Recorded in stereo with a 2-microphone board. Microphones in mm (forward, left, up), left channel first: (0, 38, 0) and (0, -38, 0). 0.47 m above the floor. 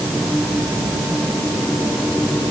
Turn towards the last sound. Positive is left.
No sound to turn to.